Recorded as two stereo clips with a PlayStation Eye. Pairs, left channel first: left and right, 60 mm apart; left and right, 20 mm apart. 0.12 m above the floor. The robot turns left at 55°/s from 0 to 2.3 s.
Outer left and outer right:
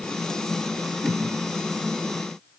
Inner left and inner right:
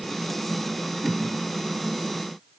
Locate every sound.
1.0 s a whoosh: 10° right (ahead or behind), 3.5 m; by 1.2 s 20° right (ahead or behind), 3.5 m